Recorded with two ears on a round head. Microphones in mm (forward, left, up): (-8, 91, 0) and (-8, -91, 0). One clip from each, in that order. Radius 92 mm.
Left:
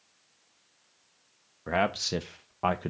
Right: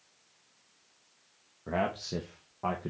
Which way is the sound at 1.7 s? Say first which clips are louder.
Left 5 dB; 45° left (ahead or behind).